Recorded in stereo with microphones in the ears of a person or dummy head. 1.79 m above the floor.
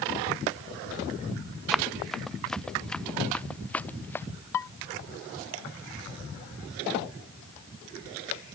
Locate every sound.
1.7 s running footsteps: centre (ahead or behind); by 4.2 s 10° left (ahead or behind)
4.5 s dishes clattering: 10° left (ahead or behind)